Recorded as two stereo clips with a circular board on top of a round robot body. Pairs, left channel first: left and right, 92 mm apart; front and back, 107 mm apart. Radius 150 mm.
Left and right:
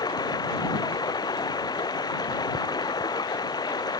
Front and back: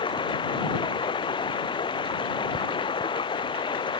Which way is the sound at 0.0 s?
45° left.